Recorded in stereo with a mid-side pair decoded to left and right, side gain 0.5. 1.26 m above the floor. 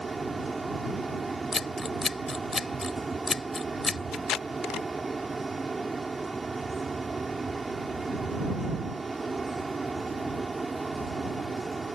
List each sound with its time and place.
0.0 s a fan: 20° right
1.5 s scissors: 30° left
4.1 s tape being pulled: 65° left